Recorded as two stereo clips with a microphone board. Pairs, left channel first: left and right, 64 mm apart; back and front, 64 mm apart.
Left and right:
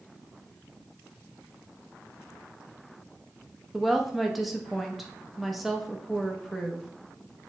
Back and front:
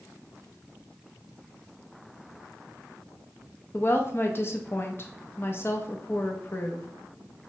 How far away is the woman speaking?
About 0.6 m.